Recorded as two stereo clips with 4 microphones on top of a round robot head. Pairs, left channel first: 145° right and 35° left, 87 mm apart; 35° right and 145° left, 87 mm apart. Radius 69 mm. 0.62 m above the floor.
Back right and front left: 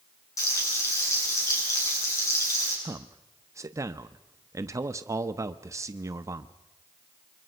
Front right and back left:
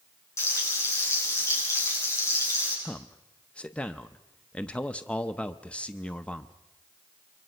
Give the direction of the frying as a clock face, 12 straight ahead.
3 o'clock.